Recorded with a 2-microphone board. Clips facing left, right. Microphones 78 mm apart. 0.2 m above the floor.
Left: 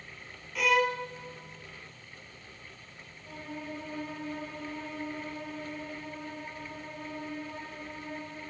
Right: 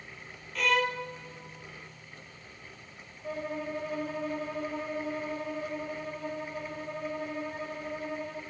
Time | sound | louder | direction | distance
0.6 | a violin | left 2 dB | 5° left (ahead or behind) | 0.8 m
3.2 | a violin | right 6 dB | 75° right (ahead or behind) | 5 m